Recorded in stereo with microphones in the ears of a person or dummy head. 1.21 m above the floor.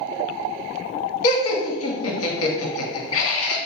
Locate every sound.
1.2 s laughter: 65° left (ahead or behind), 0.9 m